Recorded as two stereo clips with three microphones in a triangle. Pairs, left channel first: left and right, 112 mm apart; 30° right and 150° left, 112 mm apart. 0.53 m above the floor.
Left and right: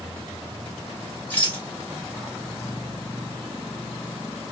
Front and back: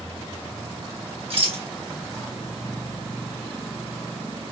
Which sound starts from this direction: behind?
A rattle, at 1.3 s.